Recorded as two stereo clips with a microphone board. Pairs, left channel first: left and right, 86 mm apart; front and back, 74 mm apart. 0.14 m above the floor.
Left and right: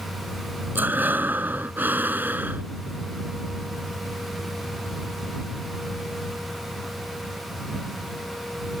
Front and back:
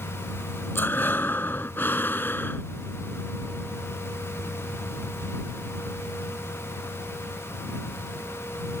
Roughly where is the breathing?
Ahead right.